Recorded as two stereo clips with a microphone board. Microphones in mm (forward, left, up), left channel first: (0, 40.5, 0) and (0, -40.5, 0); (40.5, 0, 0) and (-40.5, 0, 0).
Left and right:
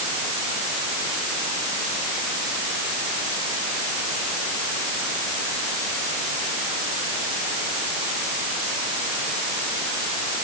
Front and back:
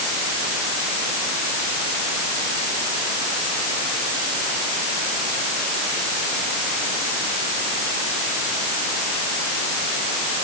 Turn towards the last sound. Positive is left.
No sound to turn to.